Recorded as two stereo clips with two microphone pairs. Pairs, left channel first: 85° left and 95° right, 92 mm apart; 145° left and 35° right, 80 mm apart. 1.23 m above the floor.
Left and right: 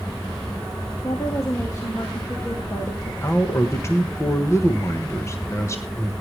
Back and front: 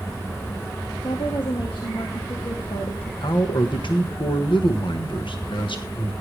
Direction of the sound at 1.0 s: 140° left.